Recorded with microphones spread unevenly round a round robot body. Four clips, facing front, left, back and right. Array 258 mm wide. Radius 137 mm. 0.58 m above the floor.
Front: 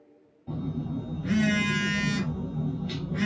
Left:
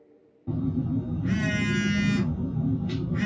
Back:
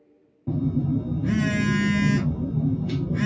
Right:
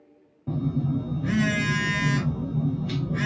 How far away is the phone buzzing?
About 0.6 m.